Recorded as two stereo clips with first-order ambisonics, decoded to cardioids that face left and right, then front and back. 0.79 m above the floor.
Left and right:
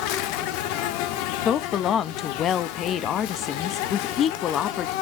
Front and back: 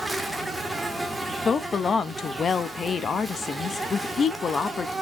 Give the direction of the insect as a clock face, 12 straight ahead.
9 o'clock.